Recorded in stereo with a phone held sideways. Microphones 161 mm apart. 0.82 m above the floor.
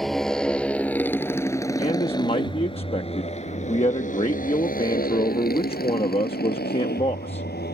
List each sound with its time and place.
0.0 s a motorcycle: centre (ahead or behind); by 7.7 s 90° left
1.8 s a man speaking: 40° left (ahead or behind)